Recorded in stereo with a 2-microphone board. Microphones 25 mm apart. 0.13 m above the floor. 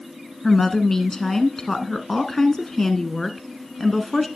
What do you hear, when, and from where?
0.4 s a woman speaking: 20° left (ahead or behind), 1.0 m